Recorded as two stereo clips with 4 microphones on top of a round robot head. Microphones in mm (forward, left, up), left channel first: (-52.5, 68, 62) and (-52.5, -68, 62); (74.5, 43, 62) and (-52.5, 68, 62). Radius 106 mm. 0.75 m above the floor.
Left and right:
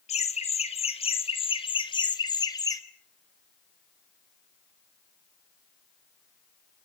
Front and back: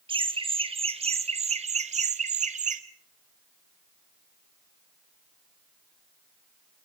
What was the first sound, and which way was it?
Laughter, 120° left.